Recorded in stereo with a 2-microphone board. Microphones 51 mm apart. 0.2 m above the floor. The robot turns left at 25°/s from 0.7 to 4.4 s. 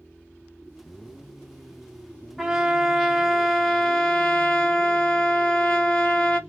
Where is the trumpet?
170° right, 1.0 m; by 6.4 s 140° left, 1.0 m.